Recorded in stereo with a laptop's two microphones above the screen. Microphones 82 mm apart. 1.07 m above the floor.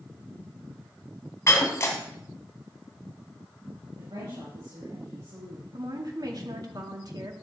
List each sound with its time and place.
1.5 s breaking glass: 35° left (ahead or behind), 1.6 m
4.0 s a woman speaking: 65° right (ahead or behind), 4.5 m
5.7 s a woman speaking: 50° right (ahead or behind), 1.7 m